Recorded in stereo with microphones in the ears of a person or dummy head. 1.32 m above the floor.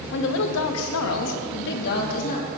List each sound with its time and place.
0.1 s a woman speaking: 60° left (ahead or behind), 1.7 m; by 2.5 s 45° left (ahead or behind), 3 m